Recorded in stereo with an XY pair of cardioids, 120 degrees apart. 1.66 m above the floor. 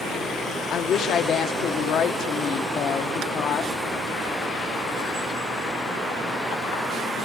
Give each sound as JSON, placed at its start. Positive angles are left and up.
{"t": 0.7, "sound": "a woman speaking", "azimuth_deg": 65, "distance_m": 1.2}